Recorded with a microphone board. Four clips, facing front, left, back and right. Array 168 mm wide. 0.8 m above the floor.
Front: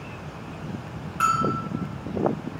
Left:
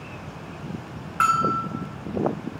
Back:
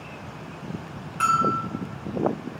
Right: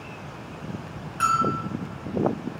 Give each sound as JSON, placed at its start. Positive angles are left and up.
{"t": 1.2, "sound": "a bell", "azimuth_deg": 80, "distance_m": 3.5}